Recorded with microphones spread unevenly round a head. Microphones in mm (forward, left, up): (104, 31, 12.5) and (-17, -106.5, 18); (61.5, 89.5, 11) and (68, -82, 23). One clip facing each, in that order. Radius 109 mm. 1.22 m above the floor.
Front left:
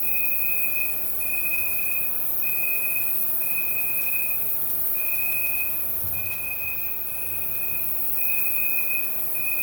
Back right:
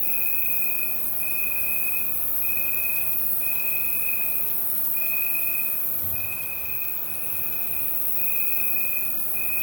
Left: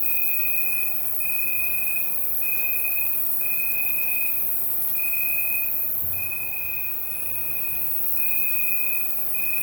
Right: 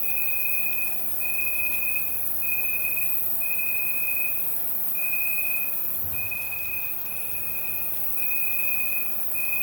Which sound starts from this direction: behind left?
An insect, at 0.0 s.